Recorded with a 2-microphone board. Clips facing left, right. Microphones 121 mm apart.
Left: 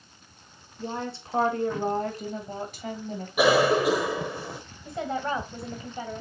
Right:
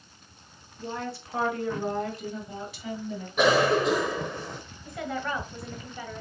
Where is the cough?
10° left (ahead or behind), 1.0 m.